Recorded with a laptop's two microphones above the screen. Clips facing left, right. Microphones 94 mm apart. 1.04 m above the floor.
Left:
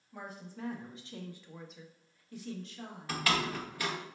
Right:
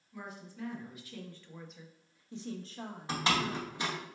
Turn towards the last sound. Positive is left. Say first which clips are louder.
# right 1 dB
turn(degrees=-20)  # may be behind; listen again after turning